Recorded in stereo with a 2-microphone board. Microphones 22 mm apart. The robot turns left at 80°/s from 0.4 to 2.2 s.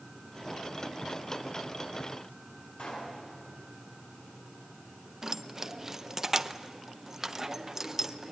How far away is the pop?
About 7.5 m.